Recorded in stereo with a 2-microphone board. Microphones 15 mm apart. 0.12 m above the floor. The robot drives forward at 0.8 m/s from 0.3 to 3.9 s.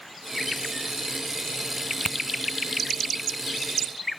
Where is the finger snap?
70° left (ahead or behind); by 2.2 s 75° left (ahead or behind).